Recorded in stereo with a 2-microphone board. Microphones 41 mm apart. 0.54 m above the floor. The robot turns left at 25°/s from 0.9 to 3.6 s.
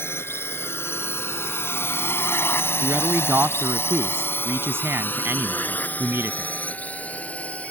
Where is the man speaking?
50° right (ahead or behind); by 6.5 s 70° right (ahead or behind).